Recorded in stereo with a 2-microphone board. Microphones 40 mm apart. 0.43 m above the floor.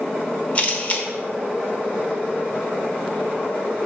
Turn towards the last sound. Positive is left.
turn(degrees=35)  # may be behind; listen again after turning